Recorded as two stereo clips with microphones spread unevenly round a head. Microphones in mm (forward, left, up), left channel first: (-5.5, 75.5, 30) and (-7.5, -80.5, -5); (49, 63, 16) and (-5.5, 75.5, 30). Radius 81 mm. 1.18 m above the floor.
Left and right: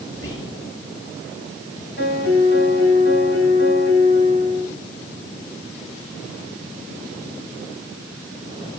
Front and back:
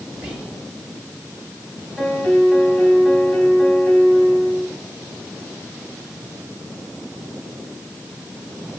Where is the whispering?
95° left, 7.5 m.